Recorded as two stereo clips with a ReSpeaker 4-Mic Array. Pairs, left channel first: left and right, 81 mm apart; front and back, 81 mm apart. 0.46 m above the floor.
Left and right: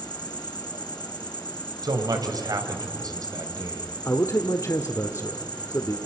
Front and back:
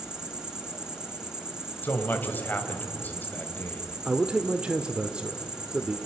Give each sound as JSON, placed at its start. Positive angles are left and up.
{"t": 0.0, "sound": "an insect", "azimuth_deg": 100, "distance_m": 2.0}
{"t": 1.8, "sound": "a man speaking", "azimuth_deg": -65, "distance_m": 2.5}
{"t": 4.0, "sound": "a man speaking", "azimuth_deg": 110, "distance_m": 0.9}